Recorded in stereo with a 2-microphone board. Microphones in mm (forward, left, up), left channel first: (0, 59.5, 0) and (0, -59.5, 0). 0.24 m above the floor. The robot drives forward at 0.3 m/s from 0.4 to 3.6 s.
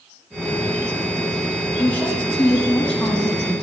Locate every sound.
1.8 s a woman speaking: 15° left (ahead or behind), 1.3 m; by 3.6 s 10° left (ahead or behind), 1.7 m